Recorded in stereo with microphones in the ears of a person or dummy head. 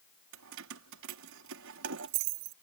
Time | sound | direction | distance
0.3 | keys jangling | 75° right (ahead or behind) | ?